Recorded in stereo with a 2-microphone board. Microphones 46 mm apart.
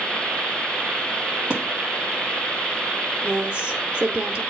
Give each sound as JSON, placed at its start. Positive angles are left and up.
{"t": 1.5, "sound": "a thud", "side_deg": -25, "distance_m": 1.6}
{"t": 3.2, "sound": "a woman speaking", "side_deg": -20, "distance_m": 0.9}